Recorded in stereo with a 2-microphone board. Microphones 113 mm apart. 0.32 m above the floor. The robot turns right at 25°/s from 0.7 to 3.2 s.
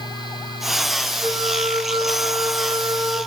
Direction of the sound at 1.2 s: 70° right.